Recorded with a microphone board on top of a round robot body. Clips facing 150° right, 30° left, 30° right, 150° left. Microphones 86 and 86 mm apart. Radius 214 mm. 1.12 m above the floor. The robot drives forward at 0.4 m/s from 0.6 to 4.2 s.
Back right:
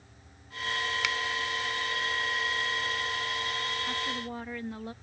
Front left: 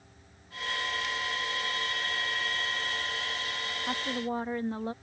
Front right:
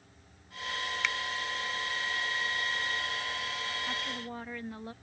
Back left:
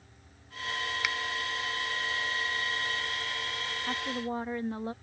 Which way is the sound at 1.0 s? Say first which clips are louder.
Back right 3 dB, even; 130° right.